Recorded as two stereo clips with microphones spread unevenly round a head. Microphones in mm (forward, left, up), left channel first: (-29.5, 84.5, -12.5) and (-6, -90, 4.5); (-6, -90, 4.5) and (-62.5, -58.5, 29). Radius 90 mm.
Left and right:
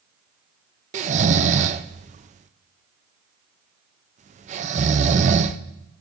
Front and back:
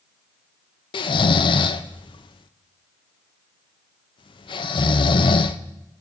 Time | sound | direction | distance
0.9 | snoring | 30° right | 0.6 m